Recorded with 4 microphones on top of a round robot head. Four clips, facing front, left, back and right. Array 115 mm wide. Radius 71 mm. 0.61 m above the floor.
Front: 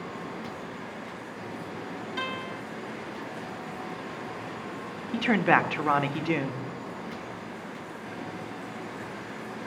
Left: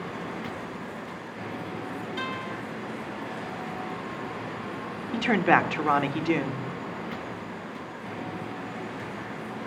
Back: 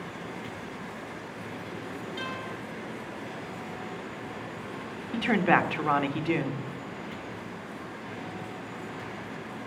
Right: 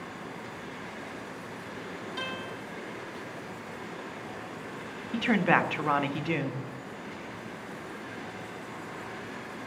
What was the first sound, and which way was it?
A guitar, 15° right.